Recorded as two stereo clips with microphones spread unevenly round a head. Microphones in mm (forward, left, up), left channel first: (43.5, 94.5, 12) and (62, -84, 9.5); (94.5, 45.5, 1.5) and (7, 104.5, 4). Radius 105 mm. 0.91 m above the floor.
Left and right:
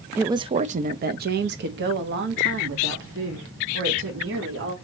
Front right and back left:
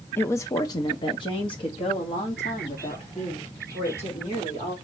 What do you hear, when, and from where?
0.2 s a woman speaking: 35° right, 0.5 m; by 4.7 s 85° right, 3 m